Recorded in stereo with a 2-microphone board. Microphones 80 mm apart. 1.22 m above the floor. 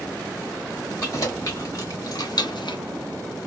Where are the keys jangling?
35° left (ahead or behind), 2.5 m; by 2.8 s 80° left, 0.6 m.